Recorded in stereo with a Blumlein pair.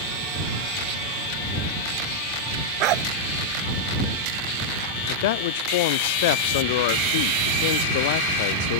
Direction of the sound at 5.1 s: 50° left.